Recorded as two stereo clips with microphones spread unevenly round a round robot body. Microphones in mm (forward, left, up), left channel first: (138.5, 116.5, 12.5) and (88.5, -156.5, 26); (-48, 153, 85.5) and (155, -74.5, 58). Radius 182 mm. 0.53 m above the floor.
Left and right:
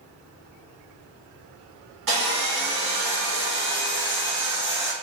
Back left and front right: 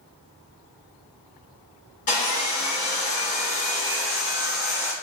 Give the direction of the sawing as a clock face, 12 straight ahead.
5 o'clock.